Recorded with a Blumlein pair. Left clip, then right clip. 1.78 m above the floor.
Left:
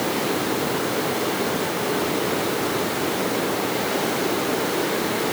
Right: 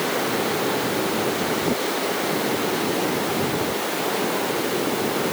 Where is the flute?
No flute in this recording.